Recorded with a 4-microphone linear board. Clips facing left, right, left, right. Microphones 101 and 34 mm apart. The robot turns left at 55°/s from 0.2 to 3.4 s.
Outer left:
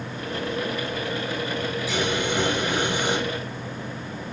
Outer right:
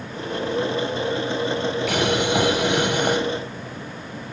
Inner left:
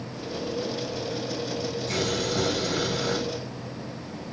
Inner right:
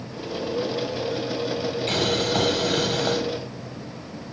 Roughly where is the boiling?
Ahead right.